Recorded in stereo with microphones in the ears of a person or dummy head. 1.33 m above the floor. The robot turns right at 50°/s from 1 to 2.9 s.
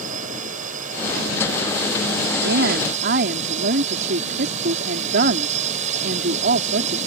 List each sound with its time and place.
0.0 s a drone: 135° right; by 7.1 s 40° right
2.4 s a woman speaking: 80° right; by 7.0 s 55° right (ahead or behind)